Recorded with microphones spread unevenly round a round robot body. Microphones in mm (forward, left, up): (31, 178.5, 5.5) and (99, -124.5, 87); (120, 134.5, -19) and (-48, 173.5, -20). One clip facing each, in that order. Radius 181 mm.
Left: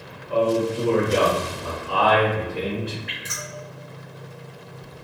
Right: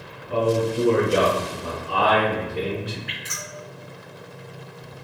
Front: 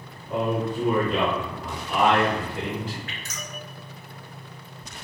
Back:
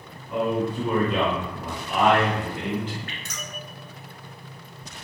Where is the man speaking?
10° right, 0.9 m; by 3.0 s 170° left, 1.4 m.